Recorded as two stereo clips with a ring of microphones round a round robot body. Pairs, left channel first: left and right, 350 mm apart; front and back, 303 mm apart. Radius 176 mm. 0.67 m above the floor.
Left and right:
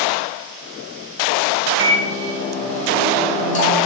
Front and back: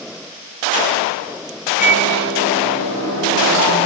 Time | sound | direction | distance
1.8 | a microwave | 20° left | 3.5 m